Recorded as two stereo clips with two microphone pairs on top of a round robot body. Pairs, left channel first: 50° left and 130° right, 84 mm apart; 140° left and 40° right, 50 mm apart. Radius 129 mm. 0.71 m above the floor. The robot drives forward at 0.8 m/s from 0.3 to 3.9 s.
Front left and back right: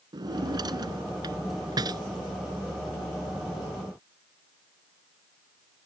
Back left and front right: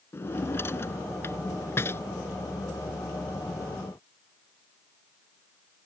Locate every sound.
0.1 s a drawer: 175° right